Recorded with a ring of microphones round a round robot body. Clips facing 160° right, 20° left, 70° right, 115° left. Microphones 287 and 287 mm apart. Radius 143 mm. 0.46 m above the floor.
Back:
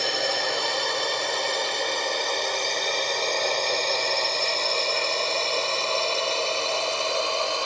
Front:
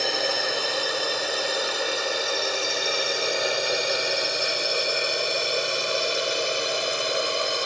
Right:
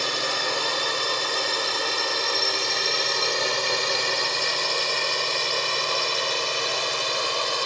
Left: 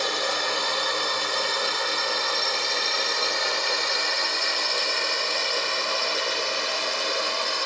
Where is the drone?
65° right; by 7.7 s 40° right.